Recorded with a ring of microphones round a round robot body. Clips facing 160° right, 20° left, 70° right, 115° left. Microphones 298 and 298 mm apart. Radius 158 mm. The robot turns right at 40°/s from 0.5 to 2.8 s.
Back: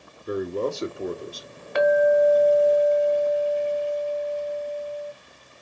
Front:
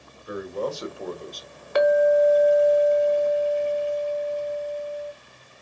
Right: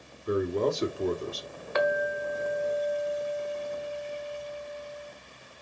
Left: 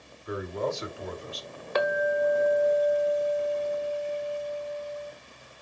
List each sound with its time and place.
0.3 s a man speaking: 115° right, 2.0 m; by 1.5 s 75° right, 2.0 m
1.8 s a clink: 65° left, 1.2 m; by 5.1 s 105° left, 1.2 m